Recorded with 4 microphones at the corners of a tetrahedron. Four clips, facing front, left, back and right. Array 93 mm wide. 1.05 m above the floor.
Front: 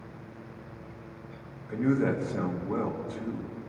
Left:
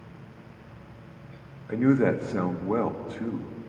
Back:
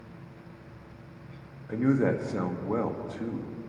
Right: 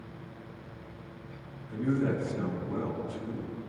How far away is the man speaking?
About 1.4 m.